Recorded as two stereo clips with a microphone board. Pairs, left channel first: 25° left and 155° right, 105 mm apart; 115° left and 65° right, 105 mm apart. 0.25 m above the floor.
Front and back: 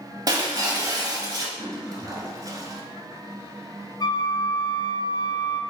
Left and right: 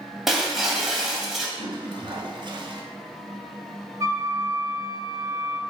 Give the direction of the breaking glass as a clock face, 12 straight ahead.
5 o'clock.